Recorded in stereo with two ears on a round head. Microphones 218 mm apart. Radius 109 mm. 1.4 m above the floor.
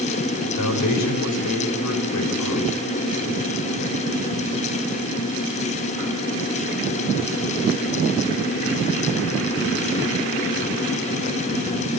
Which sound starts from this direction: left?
A man speaking, at 0.4 s.